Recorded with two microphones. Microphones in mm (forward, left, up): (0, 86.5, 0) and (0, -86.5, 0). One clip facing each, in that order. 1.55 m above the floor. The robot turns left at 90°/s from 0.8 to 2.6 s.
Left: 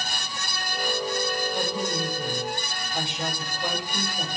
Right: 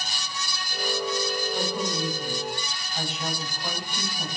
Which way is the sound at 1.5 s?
Straight behind.